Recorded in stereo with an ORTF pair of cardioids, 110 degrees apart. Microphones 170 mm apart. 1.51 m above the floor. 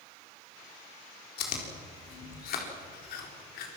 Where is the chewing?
70° left, 4 m.